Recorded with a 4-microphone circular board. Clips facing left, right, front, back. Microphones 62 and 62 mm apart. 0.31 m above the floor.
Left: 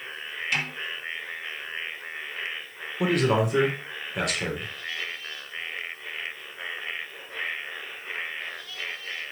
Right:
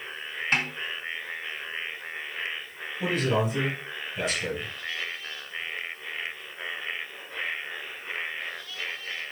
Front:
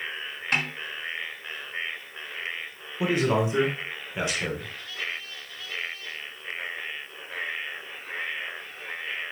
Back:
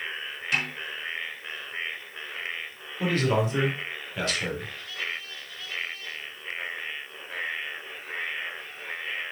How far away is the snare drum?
About 4.5 m.